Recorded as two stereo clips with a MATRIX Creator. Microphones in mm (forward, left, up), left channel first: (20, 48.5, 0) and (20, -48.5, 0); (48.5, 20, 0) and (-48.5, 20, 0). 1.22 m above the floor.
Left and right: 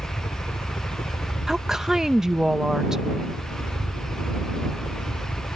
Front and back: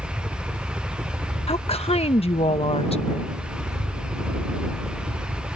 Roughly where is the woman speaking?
Ahead.